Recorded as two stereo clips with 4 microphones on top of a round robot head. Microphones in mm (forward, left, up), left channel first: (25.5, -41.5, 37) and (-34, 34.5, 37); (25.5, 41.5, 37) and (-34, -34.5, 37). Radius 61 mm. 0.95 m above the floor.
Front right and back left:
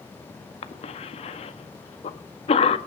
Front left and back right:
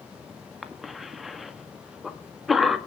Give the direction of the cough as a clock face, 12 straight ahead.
1 o'clock.